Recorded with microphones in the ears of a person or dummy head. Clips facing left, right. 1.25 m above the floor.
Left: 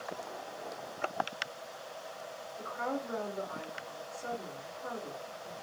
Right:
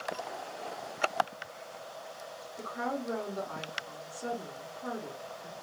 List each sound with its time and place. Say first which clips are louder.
2.6 s a woman speaking: right 1 dB; 65° right (ahead or behind), 1.7 m